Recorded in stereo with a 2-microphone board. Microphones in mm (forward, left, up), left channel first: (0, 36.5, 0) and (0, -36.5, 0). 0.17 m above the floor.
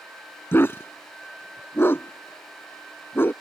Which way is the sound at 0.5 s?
30° left (ahead or behind).